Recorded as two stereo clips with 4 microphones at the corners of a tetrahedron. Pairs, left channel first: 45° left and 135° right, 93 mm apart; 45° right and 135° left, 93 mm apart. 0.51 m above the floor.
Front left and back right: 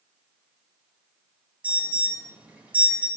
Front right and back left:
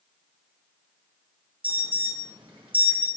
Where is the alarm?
150° left, 3.5 m.